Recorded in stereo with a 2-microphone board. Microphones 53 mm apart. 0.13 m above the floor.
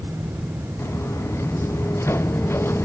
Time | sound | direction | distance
0.8 | footsteps | 60° left (ahead or behind) | ?